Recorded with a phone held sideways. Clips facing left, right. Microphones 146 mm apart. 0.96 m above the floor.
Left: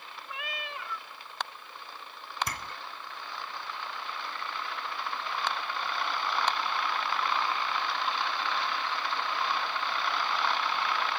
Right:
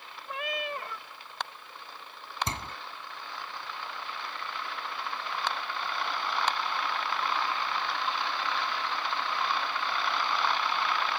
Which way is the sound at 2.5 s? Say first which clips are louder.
Right 2 dB; 25° right (ahead or behind).